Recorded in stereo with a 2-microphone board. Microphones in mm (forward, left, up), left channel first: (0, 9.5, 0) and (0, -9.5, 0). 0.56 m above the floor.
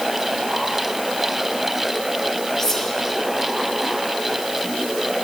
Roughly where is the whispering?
Left.